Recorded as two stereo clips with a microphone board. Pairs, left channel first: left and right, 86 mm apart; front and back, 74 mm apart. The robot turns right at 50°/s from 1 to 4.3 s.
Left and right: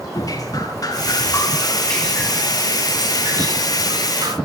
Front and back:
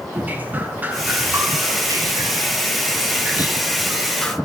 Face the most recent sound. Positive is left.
turn(degrees=-75)